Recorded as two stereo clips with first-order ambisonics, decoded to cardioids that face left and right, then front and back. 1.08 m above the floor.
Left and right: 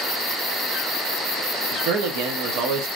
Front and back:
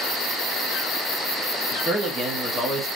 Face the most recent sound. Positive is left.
turn(degrees=-100)